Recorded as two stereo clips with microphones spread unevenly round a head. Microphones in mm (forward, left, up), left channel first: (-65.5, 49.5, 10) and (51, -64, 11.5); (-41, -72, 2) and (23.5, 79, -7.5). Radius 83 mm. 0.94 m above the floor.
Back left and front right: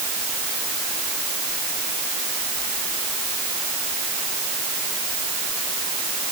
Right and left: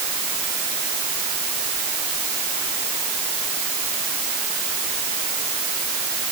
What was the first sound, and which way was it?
Only background noise.